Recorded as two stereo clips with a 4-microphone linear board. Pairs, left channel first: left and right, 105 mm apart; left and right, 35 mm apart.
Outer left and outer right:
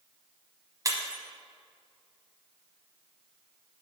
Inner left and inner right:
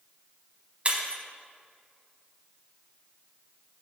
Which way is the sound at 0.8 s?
35° right (ahead or behind).